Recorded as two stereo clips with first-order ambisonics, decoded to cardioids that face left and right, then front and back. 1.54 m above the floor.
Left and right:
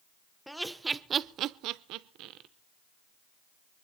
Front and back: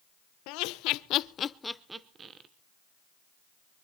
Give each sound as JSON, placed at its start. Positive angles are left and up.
{"t": 0.5, "sound": "laughter", "azimuth_deg": 0, "distance_m": 0.9}